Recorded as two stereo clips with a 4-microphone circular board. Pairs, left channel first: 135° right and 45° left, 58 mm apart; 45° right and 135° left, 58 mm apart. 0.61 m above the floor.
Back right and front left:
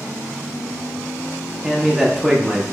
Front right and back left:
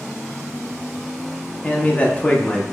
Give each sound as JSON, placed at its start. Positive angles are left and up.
{"t": 1.6, "sound": "a man speaking", "azimuth_deg": -35, "distance_m": 0.7}